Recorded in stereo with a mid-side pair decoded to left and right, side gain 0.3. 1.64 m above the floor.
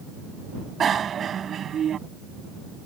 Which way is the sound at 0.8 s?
65° right.